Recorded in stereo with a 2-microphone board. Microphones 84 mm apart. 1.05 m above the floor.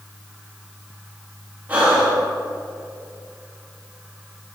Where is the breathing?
20° right (ahead or behind), 2 m.